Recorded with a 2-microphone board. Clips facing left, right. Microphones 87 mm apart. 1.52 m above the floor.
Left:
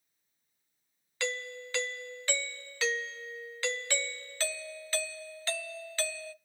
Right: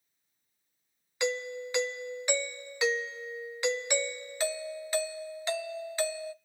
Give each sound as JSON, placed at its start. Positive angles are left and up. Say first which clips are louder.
{"t": 1.2, "sound": "a doorbell", "louder": "right 5 dB", "side_deg": -15, "distance_m": 0.6}